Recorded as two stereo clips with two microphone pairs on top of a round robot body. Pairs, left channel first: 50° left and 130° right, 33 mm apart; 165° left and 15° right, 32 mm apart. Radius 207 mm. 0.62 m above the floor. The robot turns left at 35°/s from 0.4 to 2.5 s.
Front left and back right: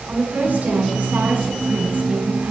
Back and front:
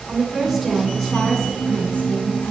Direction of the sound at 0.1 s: 95° right.